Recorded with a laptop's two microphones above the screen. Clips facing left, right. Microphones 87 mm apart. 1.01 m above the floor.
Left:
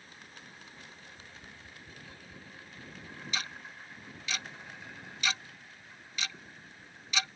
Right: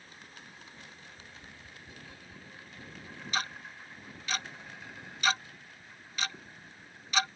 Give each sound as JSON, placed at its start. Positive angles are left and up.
{"t": 1.1, "sound": "tapping", "side_deg": 40}
{"t": 3.3, "sound": "ticking", "side_deg": -45}